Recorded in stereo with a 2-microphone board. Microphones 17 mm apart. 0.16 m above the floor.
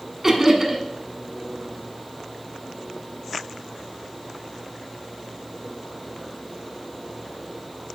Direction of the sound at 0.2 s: 25° right (ahead or behind).